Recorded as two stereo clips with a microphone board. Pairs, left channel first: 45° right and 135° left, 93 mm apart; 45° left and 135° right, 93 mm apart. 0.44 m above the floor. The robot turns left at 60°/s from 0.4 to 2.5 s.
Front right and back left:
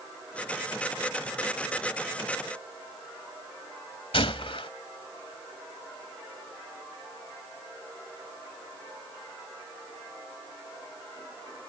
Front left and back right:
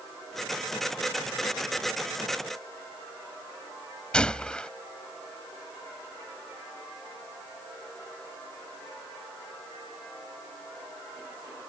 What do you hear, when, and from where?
4.1 s a gunshot: 35° right